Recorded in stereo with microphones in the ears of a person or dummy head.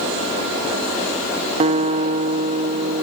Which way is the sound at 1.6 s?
35° right (ahead or behind).